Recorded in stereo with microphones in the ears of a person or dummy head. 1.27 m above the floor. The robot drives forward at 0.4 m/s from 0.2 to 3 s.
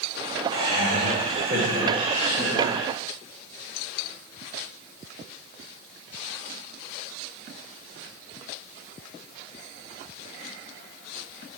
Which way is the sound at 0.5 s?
35° right (ahead or behind).